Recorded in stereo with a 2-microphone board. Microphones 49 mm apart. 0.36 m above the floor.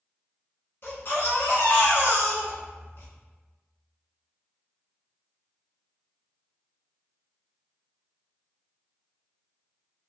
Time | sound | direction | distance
0.8 | a baby crying | 60° left (ahead or behind) | 1.2 m